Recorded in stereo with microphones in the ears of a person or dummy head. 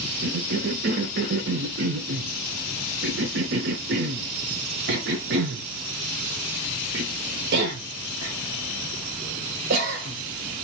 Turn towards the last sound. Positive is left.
turn(degrees=-65)  # may be behind; listen again after turning